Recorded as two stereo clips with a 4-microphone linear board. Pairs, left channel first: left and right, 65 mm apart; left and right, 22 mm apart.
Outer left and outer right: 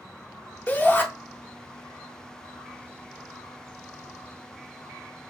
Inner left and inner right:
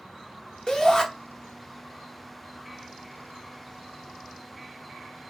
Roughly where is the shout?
Left.